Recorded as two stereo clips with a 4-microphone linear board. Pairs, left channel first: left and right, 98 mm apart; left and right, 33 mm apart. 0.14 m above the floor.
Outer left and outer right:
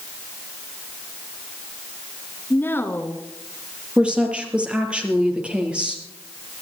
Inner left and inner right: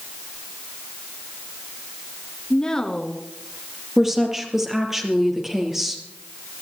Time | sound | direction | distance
2.5 | a woman speaking | 20° left (ahead or behind) | 2 m
4.0 | a woman speaking | 10° right (ahead or behind) | 4 m